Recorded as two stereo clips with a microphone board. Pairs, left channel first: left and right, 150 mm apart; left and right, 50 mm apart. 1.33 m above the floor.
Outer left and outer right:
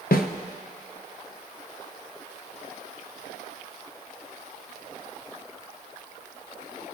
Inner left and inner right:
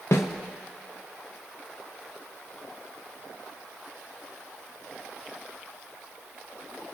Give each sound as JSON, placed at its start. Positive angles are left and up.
{"t": 0.1, "sound": "a snare drum", "side_deg": 75, "distance_m": 0.7}